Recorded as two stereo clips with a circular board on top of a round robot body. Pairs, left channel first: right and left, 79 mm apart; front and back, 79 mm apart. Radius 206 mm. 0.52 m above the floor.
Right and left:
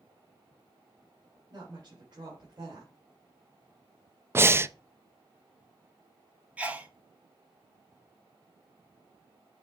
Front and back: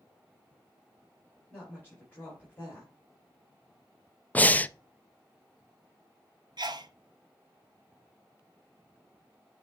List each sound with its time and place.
1.5 s a woman speaking: 65° left, 4.5 m
4.3 s breathing: 55° left, 0.7 m
6.6 s a sneeze: 160° left, 1.7 m